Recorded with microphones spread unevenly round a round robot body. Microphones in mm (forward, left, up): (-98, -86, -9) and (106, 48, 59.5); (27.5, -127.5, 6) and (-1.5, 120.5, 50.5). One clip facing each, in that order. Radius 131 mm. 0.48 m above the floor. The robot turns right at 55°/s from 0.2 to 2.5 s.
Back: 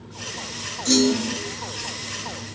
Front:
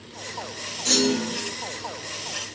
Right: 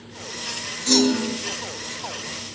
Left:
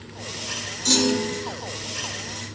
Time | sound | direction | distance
0.8 | a clunk | 125° left | 2 m